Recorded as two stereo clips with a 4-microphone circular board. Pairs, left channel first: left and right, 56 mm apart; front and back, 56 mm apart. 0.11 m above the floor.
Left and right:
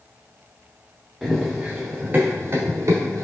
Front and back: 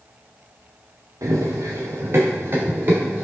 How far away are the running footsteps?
About 1.1 m.